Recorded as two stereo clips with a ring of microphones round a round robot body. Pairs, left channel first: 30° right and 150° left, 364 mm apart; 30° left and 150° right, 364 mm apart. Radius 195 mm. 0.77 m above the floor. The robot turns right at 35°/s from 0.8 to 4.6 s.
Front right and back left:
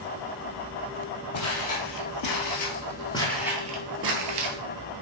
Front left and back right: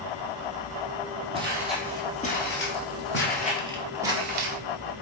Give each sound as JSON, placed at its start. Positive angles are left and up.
{"t": 1.3, "sound": "footsteps", "azimuth_deg": -75, "distance_m": 1.3}